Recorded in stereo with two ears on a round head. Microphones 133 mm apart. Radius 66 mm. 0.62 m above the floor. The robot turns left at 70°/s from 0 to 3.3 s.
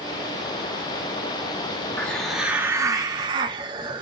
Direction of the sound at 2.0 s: 20° left.